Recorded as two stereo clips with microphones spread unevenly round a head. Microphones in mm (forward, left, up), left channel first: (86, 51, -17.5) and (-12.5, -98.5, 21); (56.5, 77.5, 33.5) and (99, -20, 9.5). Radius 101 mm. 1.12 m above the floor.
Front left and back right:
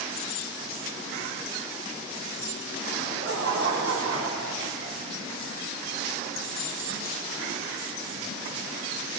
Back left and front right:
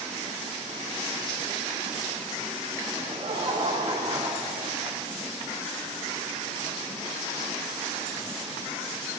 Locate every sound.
3.0 s laughter: 120° right, 4.5 m; by 5.0 s 150° right, 3 m